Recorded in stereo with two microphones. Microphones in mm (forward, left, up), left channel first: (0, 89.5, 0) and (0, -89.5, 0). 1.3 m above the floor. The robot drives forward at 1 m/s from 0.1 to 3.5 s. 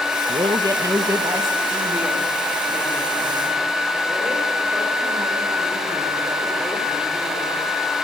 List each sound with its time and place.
0.3 s a man speaking: 30° right (ahead or behind), 0.6 m; by 7.7 s 5° right (ahead or behind), 3.5 m